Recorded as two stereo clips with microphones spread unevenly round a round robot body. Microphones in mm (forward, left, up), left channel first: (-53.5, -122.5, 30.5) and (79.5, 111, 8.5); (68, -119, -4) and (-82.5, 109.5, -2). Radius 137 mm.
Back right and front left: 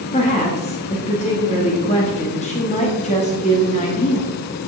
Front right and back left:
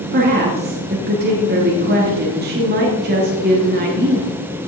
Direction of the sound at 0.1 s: 175° left.